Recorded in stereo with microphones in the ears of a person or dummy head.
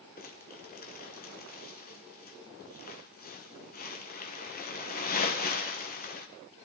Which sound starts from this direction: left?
Crumpling, at 0.2 s.